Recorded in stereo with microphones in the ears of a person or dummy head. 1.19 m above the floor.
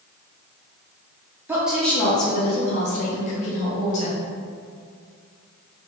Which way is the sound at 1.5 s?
10° right (ahead or behind).